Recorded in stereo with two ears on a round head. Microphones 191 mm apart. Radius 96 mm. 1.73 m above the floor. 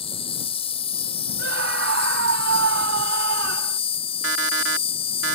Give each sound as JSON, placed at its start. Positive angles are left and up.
{"t": 0.0, "sound": "an insect", "side_deg": 25}
{"t": 1.4, "sound": "a scream", "side_deg": -65}
{"t": 4.2, "sound": "an alarm clock", "side_deg": -60}